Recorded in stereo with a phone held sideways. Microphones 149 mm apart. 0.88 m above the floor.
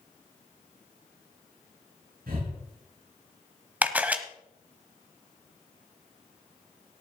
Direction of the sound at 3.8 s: 10° right (ahead or behind).